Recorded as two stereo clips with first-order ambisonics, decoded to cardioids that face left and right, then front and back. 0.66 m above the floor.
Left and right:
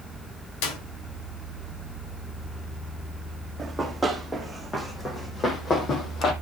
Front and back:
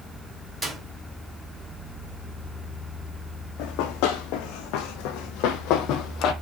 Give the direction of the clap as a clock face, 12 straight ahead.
9 o'clock.